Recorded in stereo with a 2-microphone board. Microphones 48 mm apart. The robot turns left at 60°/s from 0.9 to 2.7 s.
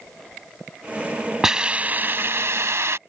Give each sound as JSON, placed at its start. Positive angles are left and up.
{"t": 1.4, "sound": "a hiss", "azimuth_deg": -10}